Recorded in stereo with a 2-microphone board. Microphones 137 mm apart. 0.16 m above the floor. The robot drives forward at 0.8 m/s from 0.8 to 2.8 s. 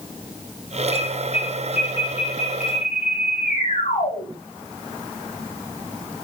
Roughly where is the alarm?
Left.